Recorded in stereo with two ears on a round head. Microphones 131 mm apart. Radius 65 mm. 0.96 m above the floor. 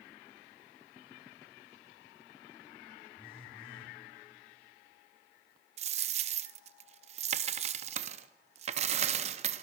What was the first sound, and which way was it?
A phone buzzing, 40° left (ahead or behind).